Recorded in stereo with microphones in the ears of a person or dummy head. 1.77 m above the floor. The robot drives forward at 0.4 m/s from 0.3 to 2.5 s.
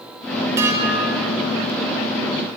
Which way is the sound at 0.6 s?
20° right (ahead or behind).